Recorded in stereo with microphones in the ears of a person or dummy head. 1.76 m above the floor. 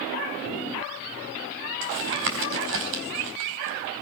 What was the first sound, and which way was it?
Tapping, 65° right (ahead or behind).